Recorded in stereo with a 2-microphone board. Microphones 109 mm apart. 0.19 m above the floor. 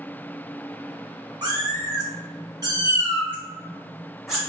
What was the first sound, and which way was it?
A cat meowing, 40° right (ahead or behind).